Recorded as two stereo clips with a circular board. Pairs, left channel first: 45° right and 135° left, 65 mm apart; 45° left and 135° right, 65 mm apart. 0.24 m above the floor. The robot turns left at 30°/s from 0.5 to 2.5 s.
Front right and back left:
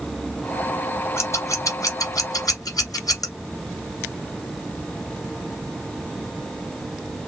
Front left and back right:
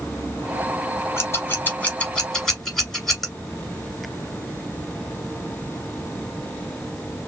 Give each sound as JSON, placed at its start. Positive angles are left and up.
{"t": 1.2, "sound": "scissors", "azimuth_deg": 0, "distance_m": 1.7}